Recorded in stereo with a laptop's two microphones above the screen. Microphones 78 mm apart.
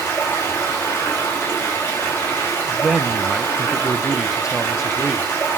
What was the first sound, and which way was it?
Running water, 35° left (ahead or behind).